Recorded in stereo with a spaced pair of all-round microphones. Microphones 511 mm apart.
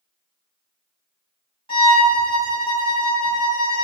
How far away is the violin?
About 1.1 m.